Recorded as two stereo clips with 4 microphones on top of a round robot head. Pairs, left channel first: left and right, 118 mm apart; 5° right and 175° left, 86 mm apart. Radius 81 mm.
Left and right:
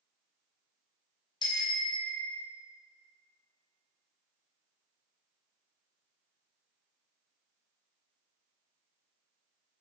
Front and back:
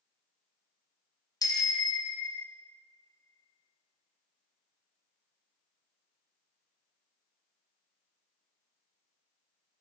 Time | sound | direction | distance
1.4 | a bicycle bell | 35° left | 2.5 m